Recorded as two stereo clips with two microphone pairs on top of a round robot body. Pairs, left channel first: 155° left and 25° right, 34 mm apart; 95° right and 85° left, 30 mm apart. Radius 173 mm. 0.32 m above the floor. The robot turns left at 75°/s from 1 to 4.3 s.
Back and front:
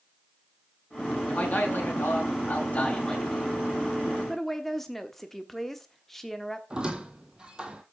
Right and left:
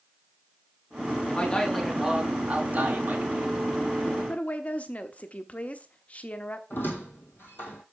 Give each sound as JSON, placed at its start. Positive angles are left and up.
{"t": 1.3, "sound": "a man speaking", "azimuth_deg": -145, "distance_m": 4.5}
{"t": 4.3, "sound": "a woman speaking", "azimuth_deg": -125, "distance_m": 1.4}
{"t": 6.7, "sound": "a squeak", "azimuth_deg": -95, "distance_m": 0.5}